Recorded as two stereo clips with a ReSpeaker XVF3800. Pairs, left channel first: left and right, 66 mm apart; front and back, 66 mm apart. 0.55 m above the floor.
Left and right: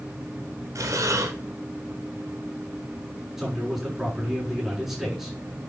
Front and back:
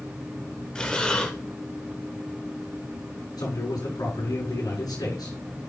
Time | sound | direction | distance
0.8 | breathing | 75° right | 1.8 m
3.4 | a man speaking | 5° right | 5.5 m